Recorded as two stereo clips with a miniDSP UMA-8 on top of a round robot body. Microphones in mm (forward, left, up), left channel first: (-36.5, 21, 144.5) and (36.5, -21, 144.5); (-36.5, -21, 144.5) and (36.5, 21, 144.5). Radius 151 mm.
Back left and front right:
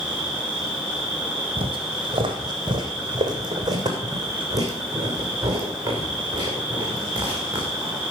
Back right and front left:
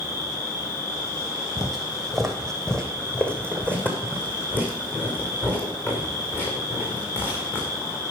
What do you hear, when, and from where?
0.0 s an insect: 110° right, 8 m
1.6 s footsteps: 50° right, 1.3 m; by 8.0 s 85° right, 4 m